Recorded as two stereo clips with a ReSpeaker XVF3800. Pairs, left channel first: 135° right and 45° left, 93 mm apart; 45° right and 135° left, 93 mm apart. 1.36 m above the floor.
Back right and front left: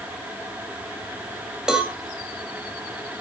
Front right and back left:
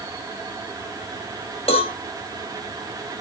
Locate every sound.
1.7 s a cowbell: 40° right, 2 m